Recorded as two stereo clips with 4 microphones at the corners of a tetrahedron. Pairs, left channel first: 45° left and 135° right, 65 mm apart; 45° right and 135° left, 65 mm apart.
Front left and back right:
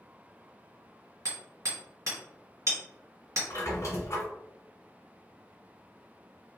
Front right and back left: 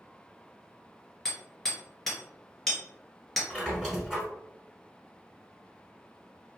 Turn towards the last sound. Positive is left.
turn(degrees=40)